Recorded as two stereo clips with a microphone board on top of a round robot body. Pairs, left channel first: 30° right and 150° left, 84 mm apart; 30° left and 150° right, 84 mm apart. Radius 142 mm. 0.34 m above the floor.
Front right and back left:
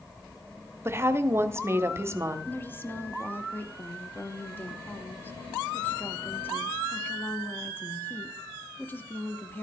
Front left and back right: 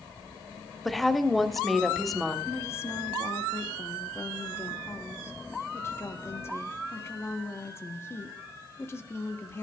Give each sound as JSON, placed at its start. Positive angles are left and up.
{"t": 0.8, "sound": "a woman speaking", "azimuth_deg": 115, "distance_m": 1.2}
{"t": 2.5, "sound": "a woman speaking", "azimuth_deg": 15, "distance_m": 1.3}